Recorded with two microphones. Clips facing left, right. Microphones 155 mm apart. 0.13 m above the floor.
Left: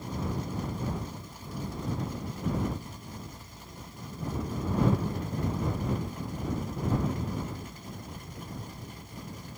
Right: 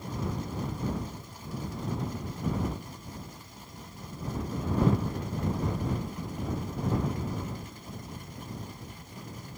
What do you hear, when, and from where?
Only background noise.